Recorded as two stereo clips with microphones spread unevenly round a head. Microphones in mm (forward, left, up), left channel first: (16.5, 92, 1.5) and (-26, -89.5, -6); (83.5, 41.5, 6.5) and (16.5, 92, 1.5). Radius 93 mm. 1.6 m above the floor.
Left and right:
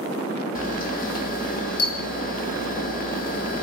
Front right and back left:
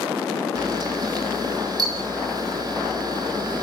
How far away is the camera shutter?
About 1.8 m.